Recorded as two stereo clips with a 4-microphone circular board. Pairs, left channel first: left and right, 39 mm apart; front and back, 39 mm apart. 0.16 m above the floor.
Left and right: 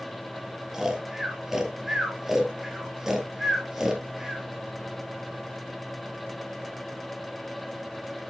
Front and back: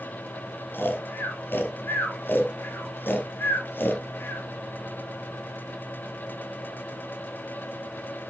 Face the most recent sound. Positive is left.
turn(degrees=-10)